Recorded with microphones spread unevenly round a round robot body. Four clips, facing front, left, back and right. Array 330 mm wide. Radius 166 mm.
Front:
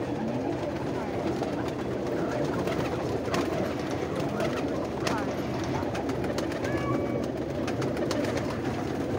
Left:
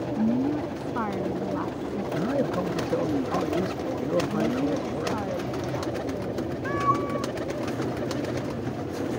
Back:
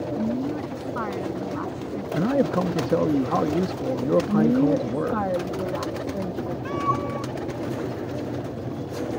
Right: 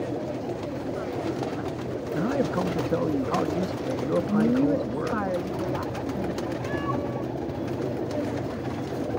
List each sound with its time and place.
0.2 s a woman speaking: 115° left
2.1 s a man speaking: straight behind
4.3 s a woman speaking: 160° right
6.7 s a cat meowing: 155° left